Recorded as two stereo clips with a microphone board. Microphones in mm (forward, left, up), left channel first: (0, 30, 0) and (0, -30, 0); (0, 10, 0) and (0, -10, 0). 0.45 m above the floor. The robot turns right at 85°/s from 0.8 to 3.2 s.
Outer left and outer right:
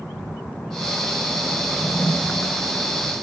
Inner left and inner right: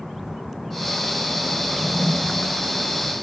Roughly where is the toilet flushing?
Right.